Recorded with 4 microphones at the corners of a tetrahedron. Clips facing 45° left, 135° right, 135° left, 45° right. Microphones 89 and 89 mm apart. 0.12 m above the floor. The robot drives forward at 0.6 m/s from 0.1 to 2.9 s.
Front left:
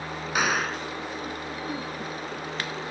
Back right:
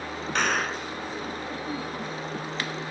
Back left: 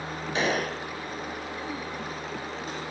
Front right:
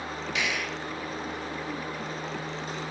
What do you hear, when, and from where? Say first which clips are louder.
0.3 s a gunshot: front left 1 dB, back left 6 dB; 120° left; by 0.9 s 140° left